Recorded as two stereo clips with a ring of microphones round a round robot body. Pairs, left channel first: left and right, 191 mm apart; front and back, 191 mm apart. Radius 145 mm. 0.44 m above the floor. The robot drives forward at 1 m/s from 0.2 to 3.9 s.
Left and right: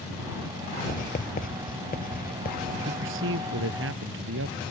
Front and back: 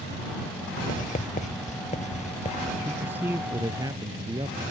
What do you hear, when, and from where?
0.9 s writing: 45° left; by 2.8 s 55° left
2.9 s a man speaking: 95° right; by 4.6 s 100° right